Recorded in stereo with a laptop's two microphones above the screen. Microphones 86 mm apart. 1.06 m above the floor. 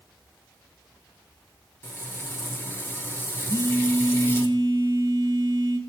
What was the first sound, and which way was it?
Frying, 30° left (ahead or behind).